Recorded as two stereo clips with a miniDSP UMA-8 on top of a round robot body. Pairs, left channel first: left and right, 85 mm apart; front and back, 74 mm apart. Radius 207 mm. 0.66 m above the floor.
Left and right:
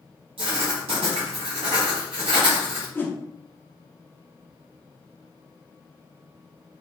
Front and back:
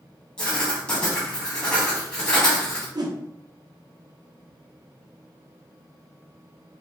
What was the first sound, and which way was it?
Writing, 80° right.